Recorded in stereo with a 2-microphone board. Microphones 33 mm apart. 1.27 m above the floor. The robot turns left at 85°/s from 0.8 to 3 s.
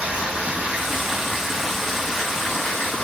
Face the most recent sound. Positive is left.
turn(degrees=70)